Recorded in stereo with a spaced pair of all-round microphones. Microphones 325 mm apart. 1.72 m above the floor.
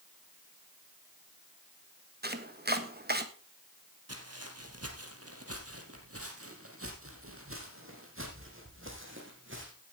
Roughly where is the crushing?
No crushing in this recording.